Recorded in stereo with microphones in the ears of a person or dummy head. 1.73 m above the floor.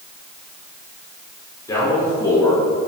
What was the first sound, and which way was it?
A man speaking, 15° left (ahead or behind).